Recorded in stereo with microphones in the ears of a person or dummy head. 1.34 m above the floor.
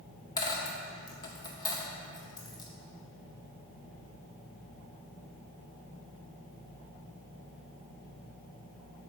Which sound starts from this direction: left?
A dropped coin, at 0.4 s.